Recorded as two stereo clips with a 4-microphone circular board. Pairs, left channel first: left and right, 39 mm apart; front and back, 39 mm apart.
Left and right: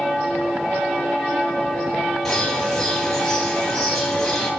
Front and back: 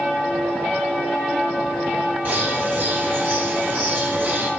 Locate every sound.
2.2 s a bird: 170° left, 2.5 m